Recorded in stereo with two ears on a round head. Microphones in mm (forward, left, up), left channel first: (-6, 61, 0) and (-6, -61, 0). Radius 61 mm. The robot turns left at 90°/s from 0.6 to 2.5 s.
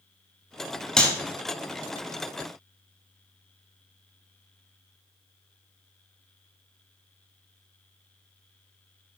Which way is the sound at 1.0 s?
5° left (ahead or behind).